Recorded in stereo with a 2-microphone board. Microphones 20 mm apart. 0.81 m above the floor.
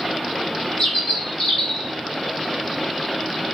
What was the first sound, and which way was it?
A bird, 55° left (ahead or behind).